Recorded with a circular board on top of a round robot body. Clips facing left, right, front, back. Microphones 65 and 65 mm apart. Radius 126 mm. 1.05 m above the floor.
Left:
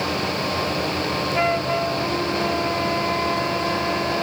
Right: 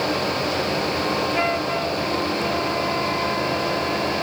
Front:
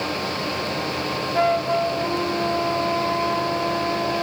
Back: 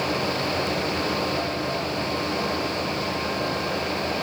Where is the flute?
5° left.